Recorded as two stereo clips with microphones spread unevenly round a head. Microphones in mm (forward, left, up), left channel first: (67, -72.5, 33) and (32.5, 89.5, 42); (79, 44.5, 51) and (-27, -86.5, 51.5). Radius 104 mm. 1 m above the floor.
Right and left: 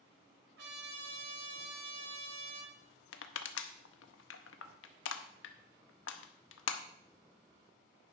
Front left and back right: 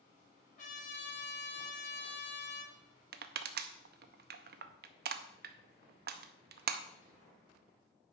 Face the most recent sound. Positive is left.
turn(degrees=-100)